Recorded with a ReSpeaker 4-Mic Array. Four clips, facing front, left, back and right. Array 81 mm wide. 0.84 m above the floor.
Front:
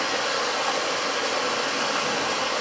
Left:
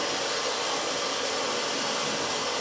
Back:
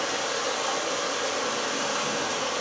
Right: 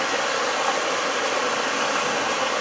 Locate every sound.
0.0 s running water: 70° right, 0.8 m